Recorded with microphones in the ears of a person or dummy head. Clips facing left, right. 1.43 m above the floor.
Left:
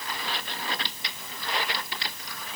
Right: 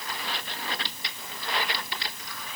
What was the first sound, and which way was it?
Only background noise.